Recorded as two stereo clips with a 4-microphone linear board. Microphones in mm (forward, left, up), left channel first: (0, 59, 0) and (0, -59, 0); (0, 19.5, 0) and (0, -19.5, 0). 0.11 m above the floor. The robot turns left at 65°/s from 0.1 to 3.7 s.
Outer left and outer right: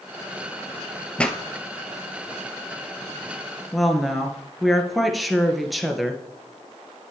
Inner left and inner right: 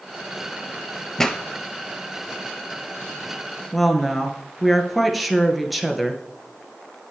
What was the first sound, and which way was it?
A pop, 10° left (ahead or behind).